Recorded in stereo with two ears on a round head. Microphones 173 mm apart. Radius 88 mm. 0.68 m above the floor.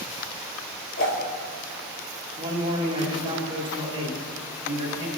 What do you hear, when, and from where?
1.0 s a whoosh: 55° left (ahead or behind), 3 m
2.4 s a man speaking: 25° right (ahead or behind), 3 m